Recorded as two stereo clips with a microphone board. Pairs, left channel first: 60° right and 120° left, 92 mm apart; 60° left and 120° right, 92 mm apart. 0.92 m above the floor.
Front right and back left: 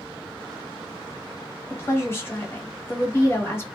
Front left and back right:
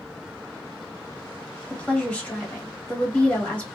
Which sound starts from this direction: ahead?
A woman speaking, at 1.7 s.